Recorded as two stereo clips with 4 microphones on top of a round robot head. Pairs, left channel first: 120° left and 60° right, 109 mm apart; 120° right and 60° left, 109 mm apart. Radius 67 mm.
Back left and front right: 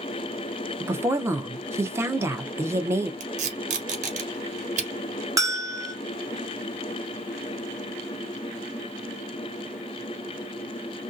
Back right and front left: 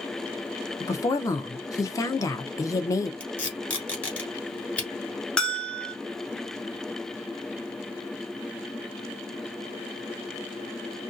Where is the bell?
45° right, 1.5 m.